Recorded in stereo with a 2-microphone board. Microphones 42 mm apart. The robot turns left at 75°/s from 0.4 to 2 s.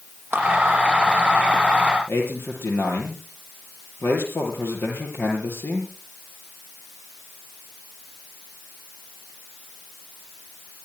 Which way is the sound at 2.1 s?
65° left (ahead or behind).